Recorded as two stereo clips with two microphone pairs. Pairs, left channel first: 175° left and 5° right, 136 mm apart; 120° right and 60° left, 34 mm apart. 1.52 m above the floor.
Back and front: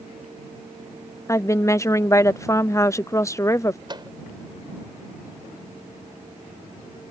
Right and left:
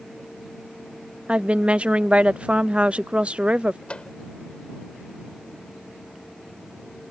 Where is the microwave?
60° right.